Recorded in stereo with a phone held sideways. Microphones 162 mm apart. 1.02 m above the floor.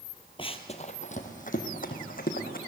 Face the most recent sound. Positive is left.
turn(degrees=65)  # may be behind; listen again after turning